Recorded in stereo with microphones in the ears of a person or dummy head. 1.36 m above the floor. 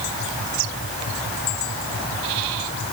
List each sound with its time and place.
Only background noise.